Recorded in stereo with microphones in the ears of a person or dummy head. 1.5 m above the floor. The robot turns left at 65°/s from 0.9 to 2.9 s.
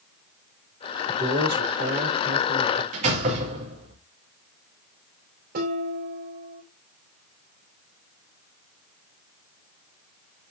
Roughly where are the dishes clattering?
Right.